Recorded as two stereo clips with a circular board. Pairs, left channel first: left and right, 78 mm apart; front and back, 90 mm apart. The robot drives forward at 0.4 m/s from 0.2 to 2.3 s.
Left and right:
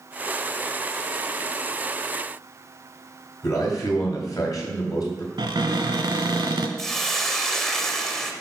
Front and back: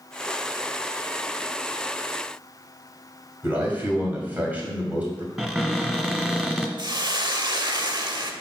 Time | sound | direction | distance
3.4 | a man speaking | 110° left | 2.5 m
5.4 | a cupboard door | 100° right | 0.8 m
6.8 | a hiss | 175° left | 0.7 m